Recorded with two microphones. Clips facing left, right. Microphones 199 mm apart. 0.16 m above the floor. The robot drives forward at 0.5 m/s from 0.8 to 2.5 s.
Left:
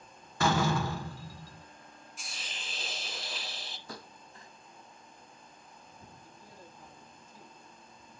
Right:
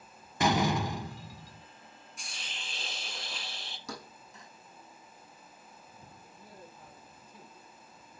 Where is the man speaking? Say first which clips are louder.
Right 1 dB; 60° right (ahead or behind), 4.5 m.